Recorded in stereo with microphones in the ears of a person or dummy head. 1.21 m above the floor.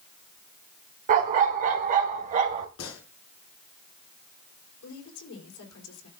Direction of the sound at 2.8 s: 80° left.